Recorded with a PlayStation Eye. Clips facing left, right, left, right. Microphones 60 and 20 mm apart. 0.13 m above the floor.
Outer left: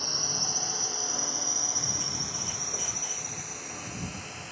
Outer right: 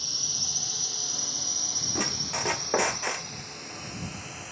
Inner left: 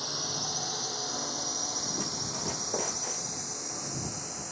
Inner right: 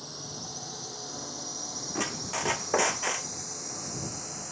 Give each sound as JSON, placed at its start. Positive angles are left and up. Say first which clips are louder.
{"t": 0.0, "sound": "a drone", "louder": "outer left 6 dB, inner left 7 dB", "side_deg": 40}
{"t": 1.9, "sound": "a squeak", "louder": "outer right 6 dB, inner right 1 dB", "side_deg": -75}